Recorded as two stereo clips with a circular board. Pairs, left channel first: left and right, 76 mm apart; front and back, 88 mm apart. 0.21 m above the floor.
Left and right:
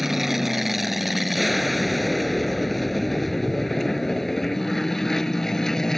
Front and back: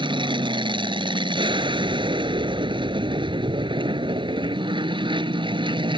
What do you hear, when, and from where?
0.0 s an aircraft: 175° right; by 6.0 s 175° left